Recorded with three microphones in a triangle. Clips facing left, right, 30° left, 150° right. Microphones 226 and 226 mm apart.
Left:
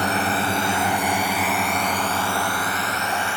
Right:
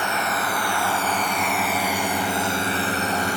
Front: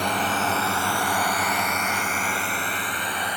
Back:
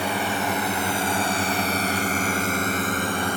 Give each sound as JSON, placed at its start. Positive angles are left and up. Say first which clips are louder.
{"t": 0.0, "sound": "a drone", "louder": "left 4 dB, back 1 dB", "azimuth_deg": 130}